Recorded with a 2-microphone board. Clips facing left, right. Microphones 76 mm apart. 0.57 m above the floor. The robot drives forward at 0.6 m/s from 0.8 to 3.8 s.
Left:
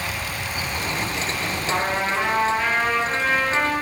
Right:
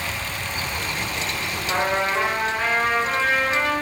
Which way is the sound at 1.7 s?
60° right (ahead or behind).